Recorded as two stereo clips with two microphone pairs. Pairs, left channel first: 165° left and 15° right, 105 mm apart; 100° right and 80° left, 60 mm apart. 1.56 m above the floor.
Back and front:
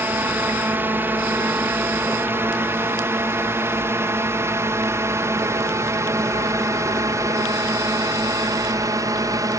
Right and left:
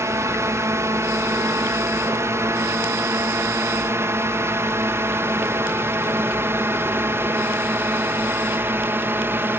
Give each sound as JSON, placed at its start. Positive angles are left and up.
{"t": 0.0, "sound": "a drone", "azimuth_deg": 55}